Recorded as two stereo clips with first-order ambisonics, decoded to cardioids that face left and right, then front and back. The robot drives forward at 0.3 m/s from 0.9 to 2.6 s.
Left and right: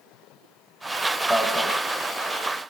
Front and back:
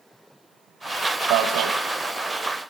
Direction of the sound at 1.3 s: 175° left.